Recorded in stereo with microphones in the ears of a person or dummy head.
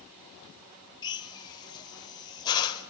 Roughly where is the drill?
Left.